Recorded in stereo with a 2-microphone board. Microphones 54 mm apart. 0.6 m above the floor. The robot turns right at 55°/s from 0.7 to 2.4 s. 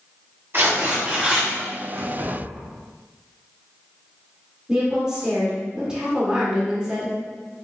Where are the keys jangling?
65° right (ahead or behind), 1.6 m; by 2.7 s 75° right (ahead or behind), 1.6 m.